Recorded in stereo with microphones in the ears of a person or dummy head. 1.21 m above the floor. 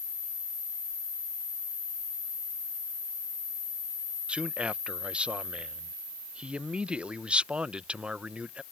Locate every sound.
4.3 s a man speaking: 5° right (ahead or behind)